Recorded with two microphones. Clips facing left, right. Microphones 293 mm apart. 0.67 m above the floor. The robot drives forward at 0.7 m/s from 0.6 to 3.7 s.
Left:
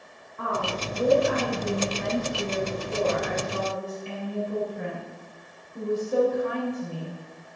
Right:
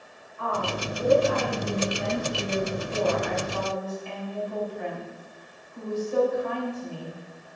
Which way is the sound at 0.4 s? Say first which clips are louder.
Even; 70° left (ahead or behind).